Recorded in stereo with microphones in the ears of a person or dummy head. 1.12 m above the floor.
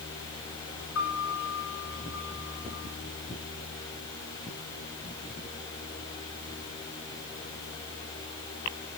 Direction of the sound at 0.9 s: 80° left.